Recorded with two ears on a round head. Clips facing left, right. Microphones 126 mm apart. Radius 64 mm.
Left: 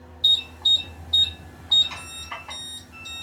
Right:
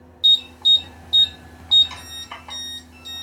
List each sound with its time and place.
0.2 s an alarm: 30° right (ahead or behind), 2.5 m